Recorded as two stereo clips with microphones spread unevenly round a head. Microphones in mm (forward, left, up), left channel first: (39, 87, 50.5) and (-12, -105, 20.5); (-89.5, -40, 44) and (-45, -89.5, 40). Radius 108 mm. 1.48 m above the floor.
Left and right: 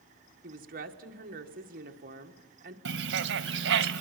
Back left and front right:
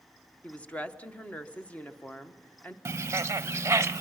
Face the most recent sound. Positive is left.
turn(degrees=-85)